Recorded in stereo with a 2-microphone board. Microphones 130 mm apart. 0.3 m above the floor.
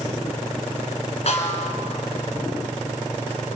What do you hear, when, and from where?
1.3 s a snare drum: 55° left (ahead or behind), 3.5 m